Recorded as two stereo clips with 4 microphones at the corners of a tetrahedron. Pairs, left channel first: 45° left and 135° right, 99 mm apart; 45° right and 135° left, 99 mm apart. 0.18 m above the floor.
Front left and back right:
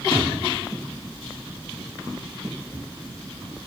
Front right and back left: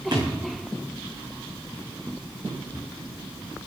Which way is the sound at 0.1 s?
90° left.